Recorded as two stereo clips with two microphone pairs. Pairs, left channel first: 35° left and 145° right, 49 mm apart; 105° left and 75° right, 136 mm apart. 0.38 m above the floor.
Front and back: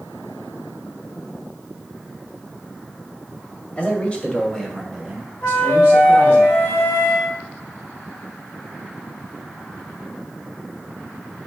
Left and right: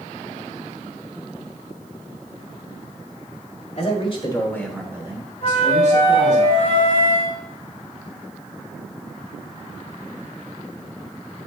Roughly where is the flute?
Left.